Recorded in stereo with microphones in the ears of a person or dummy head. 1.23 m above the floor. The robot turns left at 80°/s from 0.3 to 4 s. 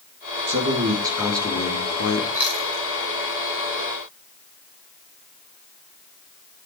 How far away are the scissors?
No scissors in this recording.